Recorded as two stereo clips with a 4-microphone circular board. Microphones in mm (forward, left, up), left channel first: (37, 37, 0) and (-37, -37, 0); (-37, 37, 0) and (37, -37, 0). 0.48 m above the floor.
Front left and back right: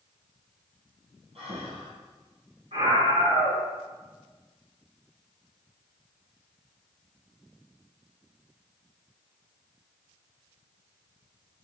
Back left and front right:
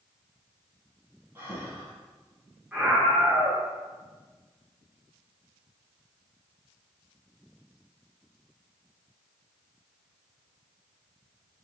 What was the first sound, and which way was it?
Breathing, 115° right.